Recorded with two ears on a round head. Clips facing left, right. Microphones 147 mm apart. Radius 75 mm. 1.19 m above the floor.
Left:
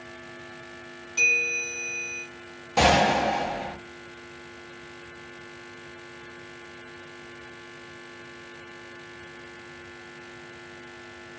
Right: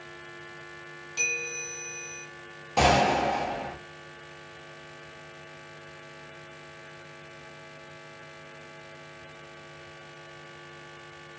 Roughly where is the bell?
Right.